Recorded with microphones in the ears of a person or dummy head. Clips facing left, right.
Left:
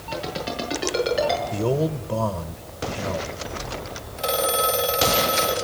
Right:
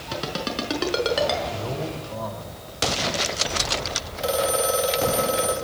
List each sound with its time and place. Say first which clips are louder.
0.1 s a ringtone: even; 70° right (ahead or behind), 5.5 m
1.5 s a man speaking: left 7 dB; 55° left (ahead or behind), 1.2 m
4.2 s a phone ringing: right 1 dB; 5° right (ahead or behind), 4.5 m